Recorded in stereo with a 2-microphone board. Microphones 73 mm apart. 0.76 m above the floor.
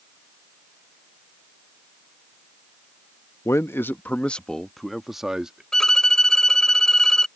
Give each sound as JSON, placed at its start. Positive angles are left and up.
{"t": 3.5, "sound": "a man speaking", "side_deg": 40}
{"t": 5.7, "sound": "a violin", "side_deg": 10}